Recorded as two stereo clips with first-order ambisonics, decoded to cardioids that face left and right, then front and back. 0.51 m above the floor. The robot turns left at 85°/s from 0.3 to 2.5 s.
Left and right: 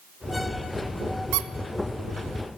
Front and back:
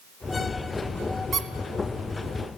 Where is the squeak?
110° right, 0.6 m; by 1.5 s 120° right, 0.6 m.